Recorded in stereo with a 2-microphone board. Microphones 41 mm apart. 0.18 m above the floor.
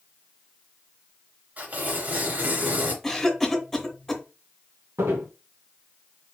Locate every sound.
1.6 s tearing paper: 40° right (ahead or behind), 2.5 m
3.0 s a cough: 5° left (ahead or behind), 1.6 m
5.0 s footsteps: 85° right, 2 m